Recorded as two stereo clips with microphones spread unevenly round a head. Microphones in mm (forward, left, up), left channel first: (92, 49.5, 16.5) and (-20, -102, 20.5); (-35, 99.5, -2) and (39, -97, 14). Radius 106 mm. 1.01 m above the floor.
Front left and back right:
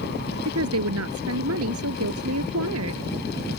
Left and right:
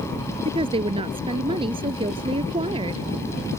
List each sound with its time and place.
0.5 s a woman speaking: 135° right